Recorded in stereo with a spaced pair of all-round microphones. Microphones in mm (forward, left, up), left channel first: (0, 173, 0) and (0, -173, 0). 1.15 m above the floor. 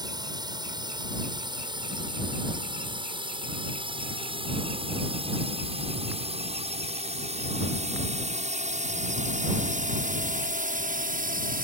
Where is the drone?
10° right (ahead or behind); by 11.7 s 25° right (ahead or behind).